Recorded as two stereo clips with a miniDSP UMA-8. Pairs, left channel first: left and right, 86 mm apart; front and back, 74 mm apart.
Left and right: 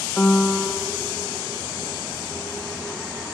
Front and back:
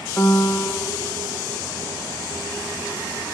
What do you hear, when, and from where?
0.2 s a piano: 35° left, 0.6 m